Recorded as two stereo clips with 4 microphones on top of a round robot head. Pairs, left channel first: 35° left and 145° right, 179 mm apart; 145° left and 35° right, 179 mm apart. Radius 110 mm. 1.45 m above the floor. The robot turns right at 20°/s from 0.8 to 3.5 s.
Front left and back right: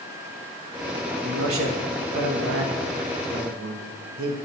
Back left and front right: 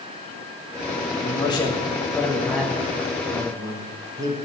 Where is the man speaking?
150° right, 1.4 m; by 4.4 s 105° right, 1.4 m.